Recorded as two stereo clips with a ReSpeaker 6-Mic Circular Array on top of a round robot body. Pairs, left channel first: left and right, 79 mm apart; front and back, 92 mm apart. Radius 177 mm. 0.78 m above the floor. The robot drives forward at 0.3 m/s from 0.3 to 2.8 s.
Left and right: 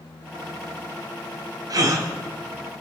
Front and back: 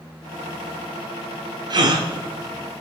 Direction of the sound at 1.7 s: 135° right.